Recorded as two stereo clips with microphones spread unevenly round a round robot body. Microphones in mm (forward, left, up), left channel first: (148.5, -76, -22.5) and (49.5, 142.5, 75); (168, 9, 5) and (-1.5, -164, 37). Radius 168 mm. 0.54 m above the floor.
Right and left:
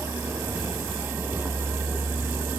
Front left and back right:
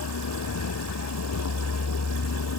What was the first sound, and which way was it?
A vehicle, 35° left.